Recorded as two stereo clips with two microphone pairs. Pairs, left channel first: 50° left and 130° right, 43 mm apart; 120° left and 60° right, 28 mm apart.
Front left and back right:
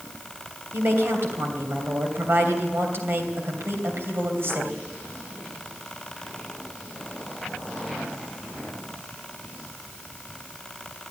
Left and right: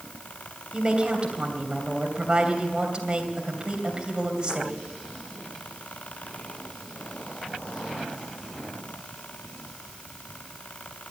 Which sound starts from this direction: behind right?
A woman speaking, at 0.7 s.